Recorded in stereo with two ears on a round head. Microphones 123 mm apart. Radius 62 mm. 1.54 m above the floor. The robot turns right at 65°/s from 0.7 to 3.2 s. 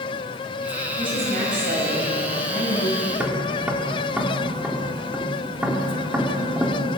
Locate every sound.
1.0 s a woman speaking: 150° right, 10 m; by 3.0 s 20° right, 10 m
3.1 s tapping: 5° right (ahead or behind), 3.5 m; by 7.0 s 10° right (ahead or behind), 3.5 m